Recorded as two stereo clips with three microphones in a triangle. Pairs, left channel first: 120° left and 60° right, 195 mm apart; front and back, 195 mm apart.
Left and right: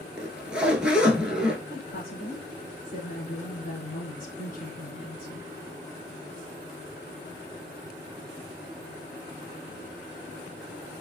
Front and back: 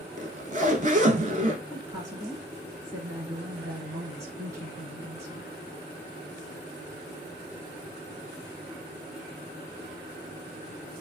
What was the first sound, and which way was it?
A zipper, 145° right.